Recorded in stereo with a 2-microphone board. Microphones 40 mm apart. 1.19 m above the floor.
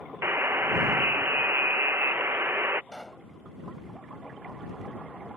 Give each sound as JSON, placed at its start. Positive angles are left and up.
{"t": 0.2, "sound": "a buzzer", "side_deg": -65}
{"t": 2.9, "sound": "a pop", "side_deg": 15}